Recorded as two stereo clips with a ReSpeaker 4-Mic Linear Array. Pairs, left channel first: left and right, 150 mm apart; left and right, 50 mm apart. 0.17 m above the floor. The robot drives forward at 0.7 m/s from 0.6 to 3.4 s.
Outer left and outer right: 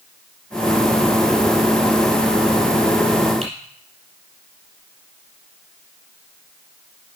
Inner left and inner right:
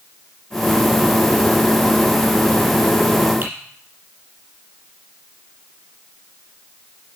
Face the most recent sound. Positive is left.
turn(degrees=-40)  # may be behind; listen again after turning